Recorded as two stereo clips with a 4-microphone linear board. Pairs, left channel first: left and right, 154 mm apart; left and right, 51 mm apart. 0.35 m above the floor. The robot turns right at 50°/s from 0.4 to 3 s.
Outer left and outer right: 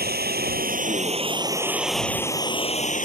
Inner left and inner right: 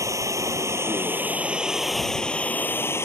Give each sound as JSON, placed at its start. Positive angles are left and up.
{"t": 0.0, "sound": "running water", "azimuth_deg": -75}